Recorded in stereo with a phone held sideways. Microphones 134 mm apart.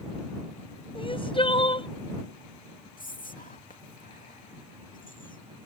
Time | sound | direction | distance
0.9 | crying | 40° left (ahead or behind) | ?
3.0 | whispering | 80° left | ?